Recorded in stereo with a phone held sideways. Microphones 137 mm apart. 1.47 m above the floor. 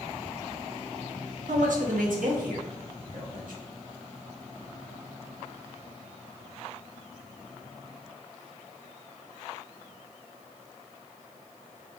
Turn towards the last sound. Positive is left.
turn(degrees=-85)